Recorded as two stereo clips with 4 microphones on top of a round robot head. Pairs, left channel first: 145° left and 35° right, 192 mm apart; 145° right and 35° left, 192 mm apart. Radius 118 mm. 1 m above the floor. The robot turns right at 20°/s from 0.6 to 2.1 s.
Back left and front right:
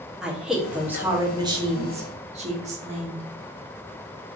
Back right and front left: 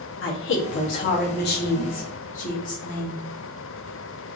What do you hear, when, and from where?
0.2 s a woman speaking: 125° right, 0.8 m; by 3.2 s 95° right, 0.8 m